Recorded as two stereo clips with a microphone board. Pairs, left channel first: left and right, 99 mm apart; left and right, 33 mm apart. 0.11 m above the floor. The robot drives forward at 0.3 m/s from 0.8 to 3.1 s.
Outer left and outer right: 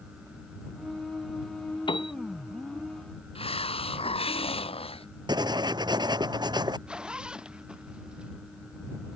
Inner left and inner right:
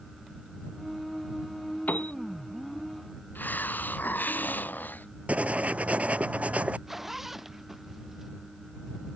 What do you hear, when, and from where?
1.9 s a piano: 60° left (ahead or behind)
3.4 s a hiss: 75° left (ahead or behind)
5.3 s writing: 45° right (ahead or behind)
6.9 s a zipper: 10° right (ahead or behind)